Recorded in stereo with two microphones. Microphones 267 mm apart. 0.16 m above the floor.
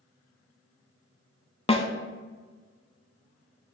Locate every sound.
1.7 s a snare drum: 20° left (ahead or behind), 0.6 m